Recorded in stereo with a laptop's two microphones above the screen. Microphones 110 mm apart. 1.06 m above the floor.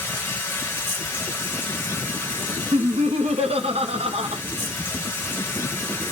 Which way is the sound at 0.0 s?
20° left (ahead or behind).